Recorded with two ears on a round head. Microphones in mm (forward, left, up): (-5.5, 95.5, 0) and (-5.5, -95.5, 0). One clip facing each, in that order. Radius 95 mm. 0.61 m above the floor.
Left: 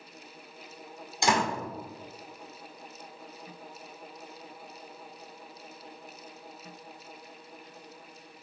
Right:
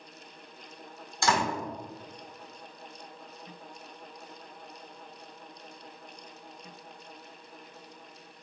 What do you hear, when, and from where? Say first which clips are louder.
1.2 s a door slam: left 1 dB; 15° left (ahead or behind), 1.4 m